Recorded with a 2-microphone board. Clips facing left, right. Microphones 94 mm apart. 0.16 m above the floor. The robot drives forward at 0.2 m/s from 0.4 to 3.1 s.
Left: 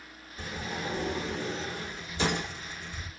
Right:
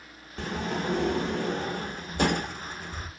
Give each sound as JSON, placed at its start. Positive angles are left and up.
{"t": 0.4, "sound": "a sliding door", "side_deg": -75, "distance_m": 0.7}